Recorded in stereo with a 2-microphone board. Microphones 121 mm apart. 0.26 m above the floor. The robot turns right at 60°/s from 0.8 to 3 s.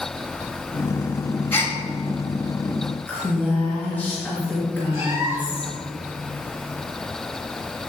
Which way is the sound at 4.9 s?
15° right (ahead or behind).